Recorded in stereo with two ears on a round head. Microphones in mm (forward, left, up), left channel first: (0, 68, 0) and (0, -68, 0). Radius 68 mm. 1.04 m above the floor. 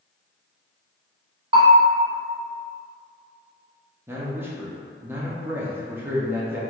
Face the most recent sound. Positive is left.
turn(degrees=-15)  # may be behind; listen again after turning